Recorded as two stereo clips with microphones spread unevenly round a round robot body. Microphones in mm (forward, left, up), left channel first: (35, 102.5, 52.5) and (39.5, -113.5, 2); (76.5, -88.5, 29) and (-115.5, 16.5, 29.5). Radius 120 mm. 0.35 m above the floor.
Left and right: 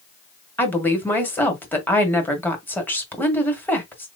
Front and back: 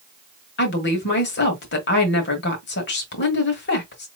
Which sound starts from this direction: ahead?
A woman speaking, at 0.6 s.